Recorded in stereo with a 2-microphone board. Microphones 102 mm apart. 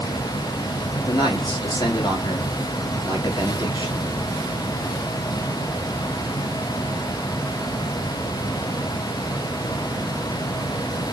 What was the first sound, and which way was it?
A man speaking, 50° left (ahead or behind).